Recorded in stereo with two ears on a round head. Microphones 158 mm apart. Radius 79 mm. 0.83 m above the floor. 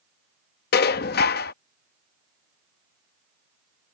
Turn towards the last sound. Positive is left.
turn(degrees=60)  # may be behind; listen again after turning